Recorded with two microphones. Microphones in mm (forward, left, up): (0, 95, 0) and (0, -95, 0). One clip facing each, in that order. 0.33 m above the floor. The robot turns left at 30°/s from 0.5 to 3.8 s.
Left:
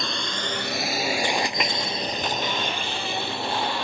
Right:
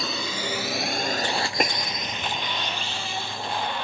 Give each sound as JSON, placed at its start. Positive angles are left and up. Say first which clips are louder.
{"t": 0.0, "sound": "a drone", "louder": "right 1 dB", "side_deg": -5}
{"t": 1.6, "sound": "a snare drum", "louder": "right 3 dB", "side_deg": -45}